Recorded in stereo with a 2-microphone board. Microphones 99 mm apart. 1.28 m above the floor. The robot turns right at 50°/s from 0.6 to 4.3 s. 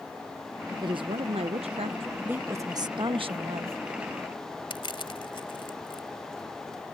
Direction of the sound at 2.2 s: 170° right.